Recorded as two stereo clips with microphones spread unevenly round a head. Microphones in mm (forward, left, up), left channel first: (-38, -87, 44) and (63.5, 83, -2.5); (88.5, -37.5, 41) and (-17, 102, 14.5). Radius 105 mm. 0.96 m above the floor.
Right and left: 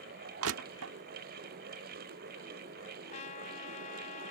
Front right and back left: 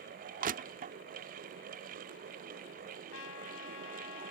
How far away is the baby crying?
I don't hear a baby crying.